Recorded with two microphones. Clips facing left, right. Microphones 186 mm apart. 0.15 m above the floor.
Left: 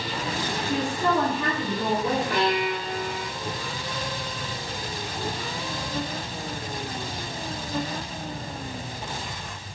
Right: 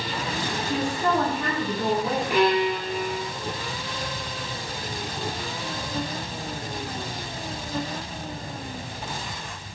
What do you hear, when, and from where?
0.6 s a woman speaking: 10° right (ahead or behind), 1.2 m
2.3 s a violin: 20° right (ahead or behind), 0.7 m